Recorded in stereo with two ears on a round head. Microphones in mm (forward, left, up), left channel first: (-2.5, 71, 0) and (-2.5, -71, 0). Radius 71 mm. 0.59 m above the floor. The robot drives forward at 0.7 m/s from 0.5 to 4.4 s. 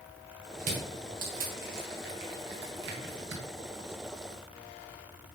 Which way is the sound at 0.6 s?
45° right (ahead or behind).